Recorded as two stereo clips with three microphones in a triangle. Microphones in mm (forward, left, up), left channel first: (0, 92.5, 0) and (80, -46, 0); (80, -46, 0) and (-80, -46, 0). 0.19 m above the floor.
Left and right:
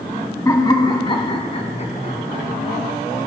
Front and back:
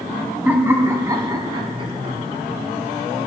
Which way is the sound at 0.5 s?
120° left.